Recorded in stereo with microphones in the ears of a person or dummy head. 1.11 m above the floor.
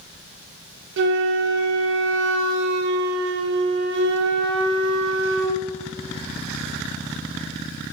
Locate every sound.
1.0 s a flute: 65° right (ahead or behind), 0.6 m